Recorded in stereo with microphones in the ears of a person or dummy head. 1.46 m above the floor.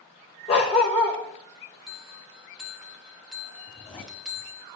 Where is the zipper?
30° left (ahead or behind), 2 m.